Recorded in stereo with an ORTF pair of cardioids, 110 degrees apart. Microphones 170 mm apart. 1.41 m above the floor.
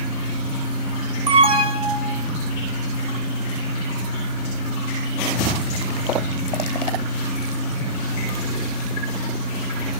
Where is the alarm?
35° right, 4 m.